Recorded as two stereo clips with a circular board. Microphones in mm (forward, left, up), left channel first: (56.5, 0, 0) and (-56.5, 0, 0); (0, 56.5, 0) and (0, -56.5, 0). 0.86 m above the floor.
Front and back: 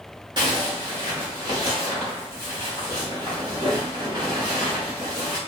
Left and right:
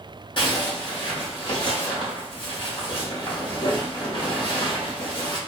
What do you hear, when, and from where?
0.4 s a zipper: 135° left, 1.2 m